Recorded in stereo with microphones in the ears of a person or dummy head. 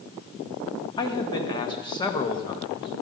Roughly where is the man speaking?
Left.